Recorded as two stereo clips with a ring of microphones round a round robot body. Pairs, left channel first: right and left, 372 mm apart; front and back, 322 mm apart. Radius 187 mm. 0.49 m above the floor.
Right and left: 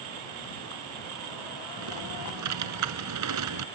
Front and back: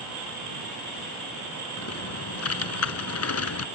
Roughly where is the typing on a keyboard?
Ahead left.